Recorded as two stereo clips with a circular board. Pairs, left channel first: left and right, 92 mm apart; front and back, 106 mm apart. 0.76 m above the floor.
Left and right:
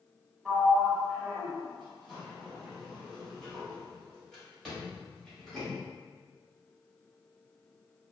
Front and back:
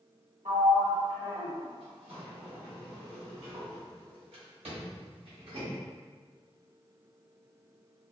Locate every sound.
0.5 s a sliding door: 175° left, 0.9 m